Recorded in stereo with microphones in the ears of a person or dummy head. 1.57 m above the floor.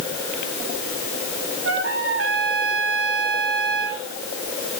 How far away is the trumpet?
About 4.5 m.